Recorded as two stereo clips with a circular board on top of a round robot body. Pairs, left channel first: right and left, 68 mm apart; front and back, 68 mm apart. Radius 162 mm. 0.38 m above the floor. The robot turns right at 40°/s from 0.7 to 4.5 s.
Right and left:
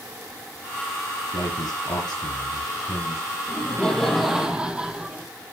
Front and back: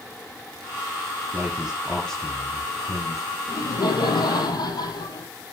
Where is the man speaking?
115° right, 5.5 m; by 3.4 s 30° right, 5.5 m.